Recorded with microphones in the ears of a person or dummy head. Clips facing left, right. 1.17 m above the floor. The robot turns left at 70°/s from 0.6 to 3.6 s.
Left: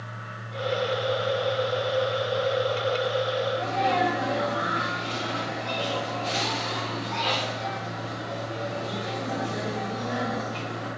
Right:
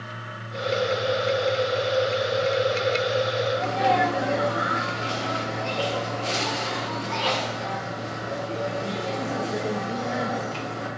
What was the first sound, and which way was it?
A sneeze, 55° right (ahead or behind).